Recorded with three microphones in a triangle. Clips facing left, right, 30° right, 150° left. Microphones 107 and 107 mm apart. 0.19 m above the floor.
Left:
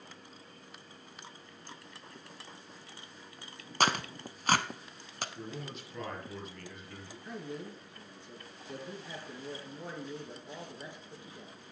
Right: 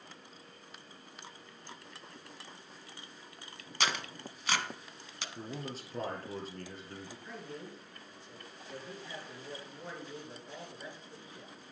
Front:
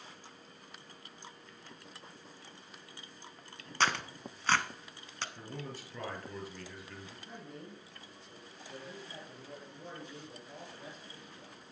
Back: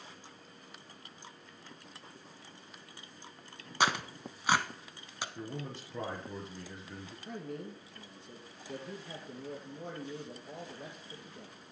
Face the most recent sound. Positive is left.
turn(degrees=160)